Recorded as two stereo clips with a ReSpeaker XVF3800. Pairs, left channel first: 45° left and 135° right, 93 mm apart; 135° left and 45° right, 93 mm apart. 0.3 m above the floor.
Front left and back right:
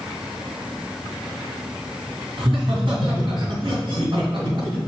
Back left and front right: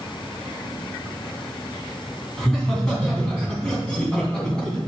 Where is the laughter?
140° right, 2.5 m.